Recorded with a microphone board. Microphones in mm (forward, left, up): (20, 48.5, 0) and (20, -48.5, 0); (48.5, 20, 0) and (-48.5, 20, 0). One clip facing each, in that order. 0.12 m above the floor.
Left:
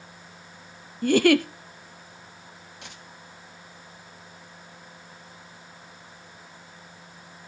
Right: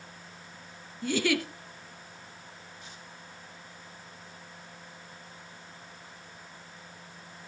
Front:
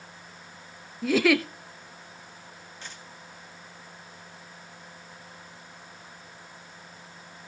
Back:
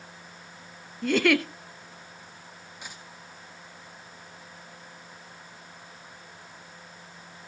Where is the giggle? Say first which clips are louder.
Left 9 dB, front 1 dB; 85° left, 0.9 m.